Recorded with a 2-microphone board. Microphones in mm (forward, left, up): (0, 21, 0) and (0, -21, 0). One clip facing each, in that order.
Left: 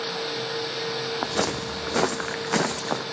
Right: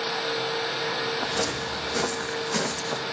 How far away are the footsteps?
About 1.2 m.